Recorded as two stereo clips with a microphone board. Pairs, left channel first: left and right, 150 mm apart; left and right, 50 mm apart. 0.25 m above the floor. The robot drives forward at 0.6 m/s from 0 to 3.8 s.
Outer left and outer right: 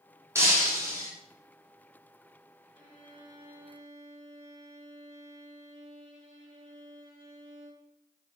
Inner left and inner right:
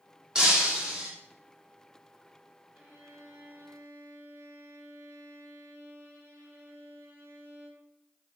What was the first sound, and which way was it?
Breaking glass, 20° right (ahead or behind).